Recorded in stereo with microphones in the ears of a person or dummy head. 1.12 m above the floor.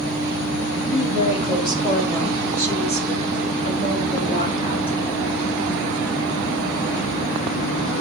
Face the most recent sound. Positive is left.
turn(degrees=35)  # may be behind; listen again after turning